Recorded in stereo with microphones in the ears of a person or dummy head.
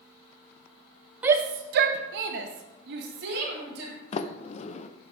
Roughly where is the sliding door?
Left.